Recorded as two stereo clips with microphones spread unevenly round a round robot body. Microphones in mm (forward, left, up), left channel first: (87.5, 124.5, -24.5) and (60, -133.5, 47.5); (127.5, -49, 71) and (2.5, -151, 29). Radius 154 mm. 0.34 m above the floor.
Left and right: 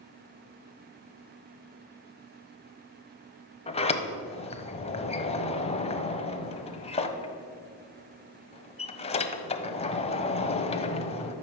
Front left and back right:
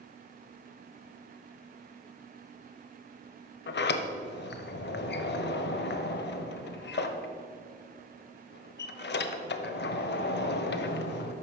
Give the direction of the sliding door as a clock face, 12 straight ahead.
11 o'clock.